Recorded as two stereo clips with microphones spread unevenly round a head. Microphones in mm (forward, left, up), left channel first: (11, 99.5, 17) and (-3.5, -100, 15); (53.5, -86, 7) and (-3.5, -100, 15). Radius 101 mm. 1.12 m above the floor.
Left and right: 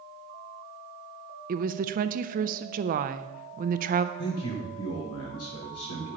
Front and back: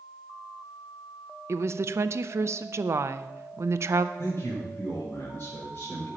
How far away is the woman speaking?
About 0.7 m.